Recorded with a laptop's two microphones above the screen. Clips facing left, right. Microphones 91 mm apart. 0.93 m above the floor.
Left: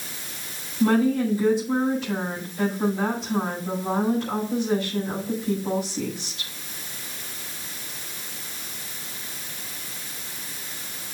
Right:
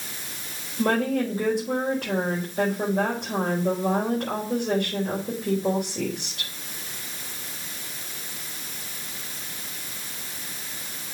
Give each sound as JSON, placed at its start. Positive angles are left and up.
{"t": 0.8, "sound": "a woman speaking", "side_deg": -65, "distance_m": 4.0}